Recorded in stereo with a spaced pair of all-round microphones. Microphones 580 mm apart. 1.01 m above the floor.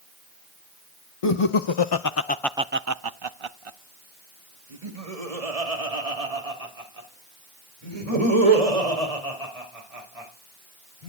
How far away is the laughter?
About 0.9 m.